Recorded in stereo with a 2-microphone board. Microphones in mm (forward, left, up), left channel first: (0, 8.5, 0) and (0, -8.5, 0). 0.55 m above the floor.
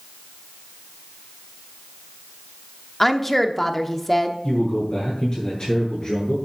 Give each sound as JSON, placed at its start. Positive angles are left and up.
{"t": 3.0, "sound": "a woman speaking", "side_deg": 10, "distance_m": 0.9}
{"t": 4.4, "sound": "a man speaking", "side_deg": 50, "distance_m": 6.5}